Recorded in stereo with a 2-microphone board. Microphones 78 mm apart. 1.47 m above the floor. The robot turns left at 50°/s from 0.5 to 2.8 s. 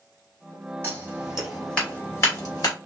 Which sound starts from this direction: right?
Scissors, at 0.8 s.